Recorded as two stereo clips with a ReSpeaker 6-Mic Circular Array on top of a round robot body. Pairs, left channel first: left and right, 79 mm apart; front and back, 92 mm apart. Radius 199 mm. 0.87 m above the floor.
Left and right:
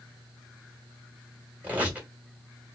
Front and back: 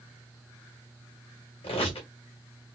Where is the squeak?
20° right, 2 m.